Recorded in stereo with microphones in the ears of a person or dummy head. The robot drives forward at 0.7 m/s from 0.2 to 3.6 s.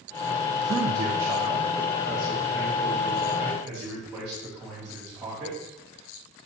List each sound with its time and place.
0.6 s a man speaking: 30° right (ahead or behind), 0.5 m; by 5.6 s 5° right (ahead or behind), 2.5 m